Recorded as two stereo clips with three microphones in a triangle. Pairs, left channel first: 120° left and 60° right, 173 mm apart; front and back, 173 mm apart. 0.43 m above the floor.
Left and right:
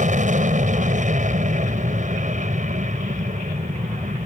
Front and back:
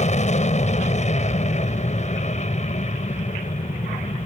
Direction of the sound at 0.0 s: 35° right.